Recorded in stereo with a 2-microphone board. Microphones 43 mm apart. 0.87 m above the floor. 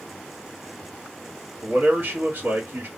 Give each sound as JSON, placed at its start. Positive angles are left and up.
{"t": 1.6, "sound": "a man speaking", "side_deg": -55, "distance_m": 1.5}